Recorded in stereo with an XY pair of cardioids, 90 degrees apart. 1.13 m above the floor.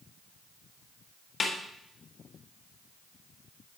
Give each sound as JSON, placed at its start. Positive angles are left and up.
{"t": 1.4, "sound": "a snare drum", "azimuth_deg": 45, "distance_m": 1.3}